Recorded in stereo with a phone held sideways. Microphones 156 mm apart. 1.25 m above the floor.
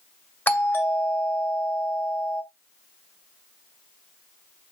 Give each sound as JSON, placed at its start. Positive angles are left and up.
{"t": 0.5, "sound": "a doorbell", "side_deg": 10, "distance_m": 2.5}